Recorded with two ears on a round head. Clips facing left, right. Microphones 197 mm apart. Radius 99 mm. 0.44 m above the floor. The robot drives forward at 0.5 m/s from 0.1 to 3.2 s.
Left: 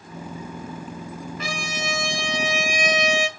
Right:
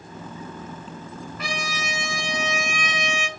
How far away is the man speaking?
I don't hear a man speaking.